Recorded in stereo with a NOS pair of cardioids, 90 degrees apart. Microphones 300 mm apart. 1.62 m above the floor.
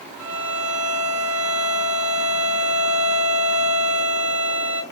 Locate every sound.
0.2 s a violin: 5° right, 1.0 m